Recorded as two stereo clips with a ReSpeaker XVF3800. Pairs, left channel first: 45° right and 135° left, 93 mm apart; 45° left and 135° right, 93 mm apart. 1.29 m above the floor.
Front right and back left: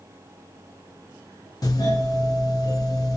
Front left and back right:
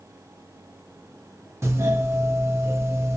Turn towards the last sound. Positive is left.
turn(degrees=-85)